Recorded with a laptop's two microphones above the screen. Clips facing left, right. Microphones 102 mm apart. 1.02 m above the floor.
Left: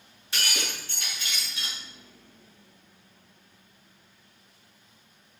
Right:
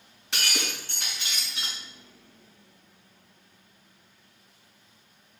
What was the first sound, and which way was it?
Breaking glass, 70° right (ahead or behind).